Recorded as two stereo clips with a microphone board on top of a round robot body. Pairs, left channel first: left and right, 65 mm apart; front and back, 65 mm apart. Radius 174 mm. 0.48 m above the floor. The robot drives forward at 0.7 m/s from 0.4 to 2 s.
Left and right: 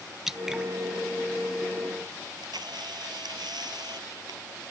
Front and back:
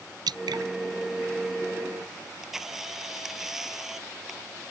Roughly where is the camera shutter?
Right.